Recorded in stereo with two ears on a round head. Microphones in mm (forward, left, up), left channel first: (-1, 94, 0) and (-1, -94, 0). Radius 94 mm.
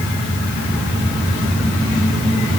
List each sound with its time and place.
Only background noise.